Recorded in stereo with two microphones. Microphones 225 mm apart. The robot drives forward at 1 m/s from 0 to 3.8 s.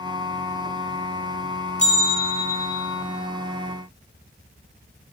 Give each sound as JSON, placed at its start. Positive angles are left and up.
{"t": 1.8, "sound": "a bell", "side_deg": 30, "distance_m": 1.3}